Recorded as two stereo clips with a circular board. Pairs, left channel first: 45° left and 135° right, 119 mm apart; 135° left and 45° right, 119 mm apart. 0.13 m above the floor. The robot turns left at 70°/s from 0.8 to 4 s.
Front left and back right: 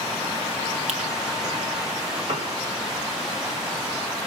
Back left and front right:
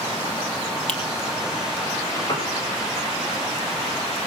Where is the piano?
170° right, 3.5 m; by 2.5 s 170° left, 3.5 m.